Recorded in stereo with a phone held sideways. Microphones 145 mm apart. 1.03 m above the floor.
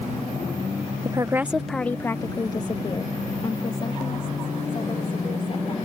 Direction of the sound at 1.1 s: 30° right (ahead or behind).